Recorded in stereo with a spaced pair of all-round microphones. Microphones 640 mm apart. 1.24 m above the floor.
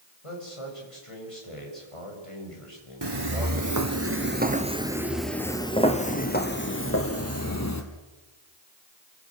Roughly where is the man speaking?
Left.